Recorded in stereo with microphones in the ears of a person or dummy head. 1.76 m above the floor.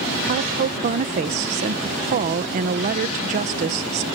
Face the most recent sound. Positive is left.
turn(degrees=-40)  # may be behind; listen again after turning